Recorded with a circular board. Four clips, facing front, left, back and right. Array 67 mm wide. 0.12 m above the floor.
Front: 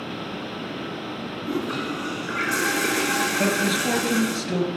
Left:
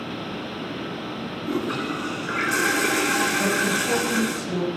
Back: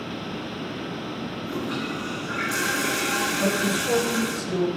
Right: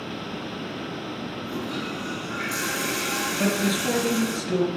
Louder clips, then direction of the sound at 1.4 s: Left 7 dB, front 3 dB; 70° left.